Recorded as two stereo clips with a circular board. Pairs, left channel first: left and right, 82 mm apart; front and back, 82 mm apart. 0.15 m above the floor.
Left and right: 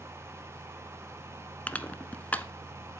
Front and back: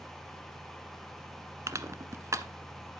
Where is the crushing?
150° left, 1.0 m.